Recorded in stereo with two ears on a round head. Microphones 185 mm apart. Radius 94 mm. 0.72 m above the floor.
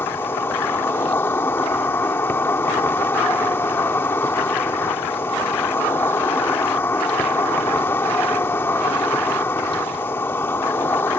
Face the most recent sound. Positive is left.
turn(degrees=10)  # may be behind; listen again after turning